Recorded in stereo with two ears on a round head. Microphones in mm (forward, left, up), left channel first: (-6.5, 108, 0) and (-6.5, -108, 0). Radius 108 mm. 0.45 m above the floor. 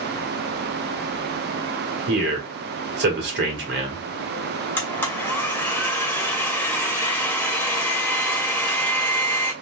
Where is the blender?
10° left (ahead or behind), 1.1 m.